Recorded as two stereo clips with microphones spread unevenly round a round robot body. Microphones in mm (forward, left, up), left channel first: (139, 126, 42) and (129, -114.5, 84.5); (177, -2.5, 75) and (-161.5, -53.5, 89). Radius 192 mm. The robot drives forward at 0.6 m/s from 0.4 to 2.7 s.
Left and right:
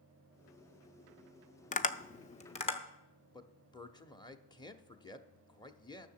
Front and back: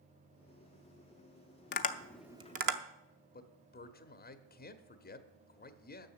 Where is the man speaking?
45° left, 0.9 m.